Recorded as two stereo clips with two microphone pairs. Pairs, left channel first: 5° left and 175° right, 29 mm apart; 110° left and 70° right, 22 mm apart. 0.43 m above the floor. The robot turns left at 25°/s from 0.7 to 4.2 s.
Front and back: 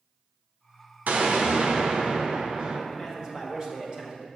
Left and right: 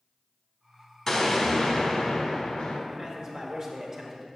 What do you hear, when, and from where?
1.1 s an explosion: 175° right, 0.9 m; by 2.8 s 145° left, 0.9 m
2.9 s a man speaking: 110° right, 1.4 m; by 4.3 s 140° right, 1.4 m